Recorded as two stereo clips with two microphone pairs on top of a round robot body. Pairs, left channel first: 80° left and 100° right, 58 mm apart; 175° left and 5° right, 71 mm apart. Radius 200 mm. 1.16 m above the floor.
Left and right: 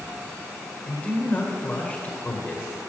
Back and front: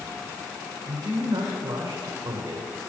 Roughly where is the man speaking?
Ahead left.